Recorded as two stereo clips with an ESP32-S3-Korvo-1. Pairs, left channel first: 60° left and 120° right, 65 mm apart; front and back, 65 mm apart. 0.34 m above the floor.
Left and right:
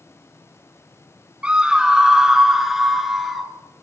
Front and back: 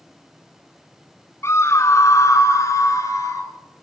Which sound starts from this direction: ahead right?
A scream, at 1.4 s.